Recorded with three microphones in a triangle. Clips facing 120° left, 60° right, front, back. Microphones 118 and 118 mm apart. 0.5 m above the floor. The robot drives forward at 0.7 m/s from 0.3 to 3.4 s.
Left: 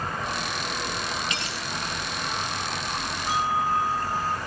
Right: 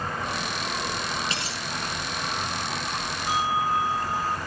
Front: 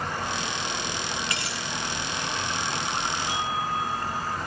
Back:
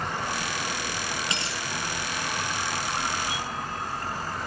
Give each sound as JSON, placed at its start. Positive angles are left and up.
{"t": 1.3, "sound": "a dropped coin", "azimuth_deg": -115, "distance_m": 8.5}
{"t": 3.3, "sound": "a bell", "azimuth_deg": -130, "distance_m": 1.9}